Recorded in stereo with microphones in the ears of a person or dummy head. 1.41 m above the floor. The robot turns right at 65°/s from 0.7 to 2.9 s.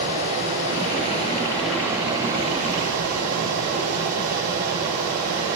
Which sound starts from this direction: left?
Running water, at 0.0 s.